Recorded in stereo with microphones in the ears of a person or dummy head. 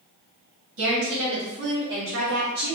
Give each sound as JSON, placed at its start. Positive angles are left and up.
{"t": 0.8, "sound": "a woman speaking", "side_deg": -80, "distance_m": 1.5}